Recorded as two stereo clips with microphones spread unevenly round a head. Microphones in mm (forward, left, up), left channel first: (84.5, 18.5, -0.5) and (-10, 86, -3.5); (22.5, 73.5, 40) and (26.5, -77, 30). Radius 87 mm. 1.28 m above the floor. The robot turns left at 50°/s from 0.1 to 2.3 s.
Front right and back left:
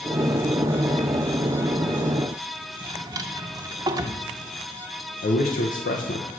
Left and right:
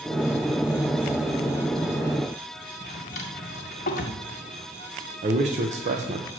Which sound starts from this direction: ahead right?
A man speaking, at 5.2 s.